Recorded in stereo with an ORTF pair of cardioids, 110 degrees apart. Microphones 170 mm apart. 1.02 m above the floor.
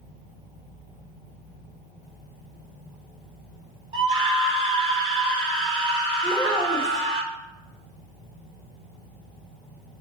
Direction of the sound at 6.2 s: Straight ahead.